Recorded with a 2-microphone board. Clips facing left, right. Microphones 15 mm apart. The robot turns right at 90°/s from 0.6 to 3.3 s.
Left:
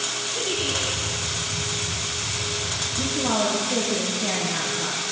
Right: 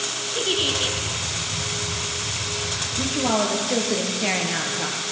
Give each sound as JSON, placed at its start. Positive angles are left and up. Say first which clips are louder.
{"t": 0.3, "sound": "a giggle", "louder": "right 5 dB", "azimuth_deg": -120, "distance_m": 1.4}
{"t": 3.0, "sound": "a woman speaking", "louder": "right 2 dB", "side_deg": -25, "distance_m": 2.0}